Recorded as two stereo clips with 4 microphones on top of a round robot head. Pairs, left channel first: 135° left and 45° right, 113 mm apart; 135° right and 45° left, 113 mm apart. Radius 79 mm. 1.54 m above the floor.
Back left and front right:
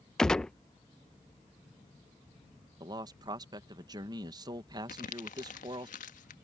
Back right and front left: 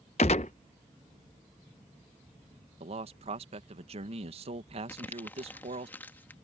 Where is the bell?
No bell in this recording.